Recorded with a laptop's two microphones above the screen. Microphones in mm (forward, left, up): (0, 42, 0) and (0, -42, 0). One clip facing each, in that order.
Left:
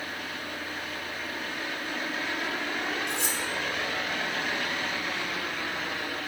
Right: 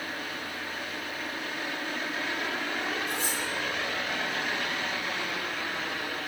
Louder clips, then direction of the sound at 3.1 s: Even; 85° left.